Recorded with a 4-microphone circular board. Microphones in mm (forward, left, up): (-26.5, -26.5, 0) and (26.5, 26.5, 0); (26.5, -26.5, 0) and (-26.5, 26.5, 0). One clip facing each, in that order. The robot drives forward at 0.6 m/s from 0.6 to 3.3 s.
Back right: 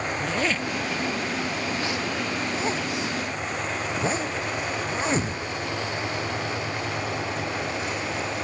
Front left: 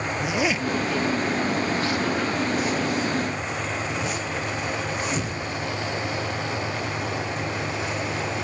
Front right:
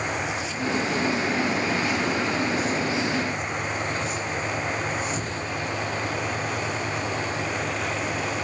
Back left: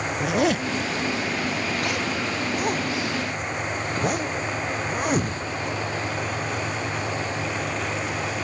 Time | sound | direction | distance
0.2 | a zipper | 125° left | 0.6 m